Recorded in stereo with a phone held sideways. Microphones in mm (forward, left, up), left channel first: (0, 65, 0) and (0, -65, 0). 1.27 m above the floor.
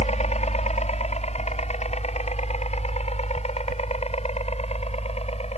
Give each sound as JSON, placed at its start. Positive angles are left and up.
{"t": 0.0, "sound": "a helicopter", "side_deg": 60}